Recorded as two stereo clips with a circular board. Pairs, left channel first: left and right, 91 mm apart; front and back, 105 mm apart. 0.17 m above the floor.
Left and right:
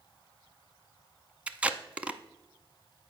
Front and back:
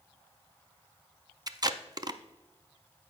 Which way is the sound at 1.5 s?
160° right.